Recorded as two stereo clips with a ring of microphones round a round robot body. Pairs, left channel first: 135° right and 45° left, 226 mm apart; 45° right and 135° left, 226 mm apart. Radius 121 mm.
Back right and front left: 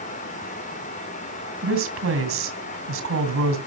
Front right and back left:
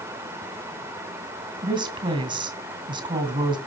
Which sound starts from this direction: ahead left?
A woman speaking, at 1.6 s.